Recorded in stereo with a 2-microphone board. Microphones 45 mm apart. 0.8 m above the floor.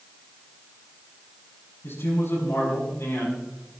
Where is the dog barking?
I don't hear a dog barking.